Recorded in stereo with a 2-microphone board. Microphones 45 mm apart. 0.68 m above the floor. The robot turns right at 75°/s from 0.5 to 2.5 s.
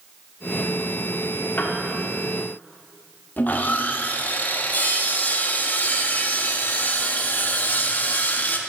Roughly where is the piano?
Left.